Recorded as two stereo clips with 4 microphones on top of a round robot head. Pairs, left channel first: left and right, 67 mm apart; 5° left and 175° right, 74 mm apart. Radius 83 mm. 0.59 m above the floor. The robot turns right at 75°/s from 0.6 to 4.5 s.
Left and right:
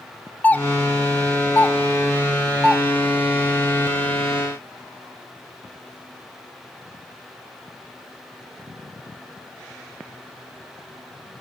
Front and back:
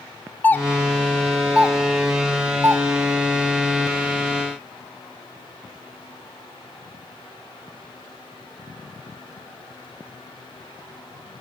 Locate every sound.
0.4 s a doorbell: 50° left, 1.2 m; by 2.8 s 145° right, 1.2 m